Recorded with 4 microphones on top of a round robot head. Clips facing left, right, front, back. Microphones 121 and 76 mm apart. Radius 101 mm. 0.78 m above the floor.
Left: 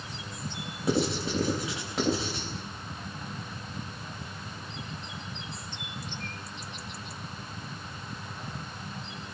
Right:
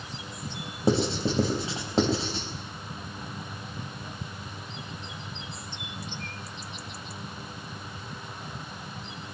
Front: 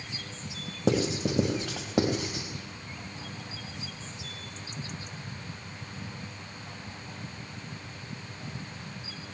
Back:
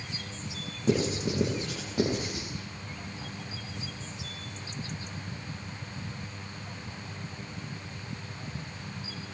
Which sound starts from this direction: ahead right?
Writing, at 0.9 s.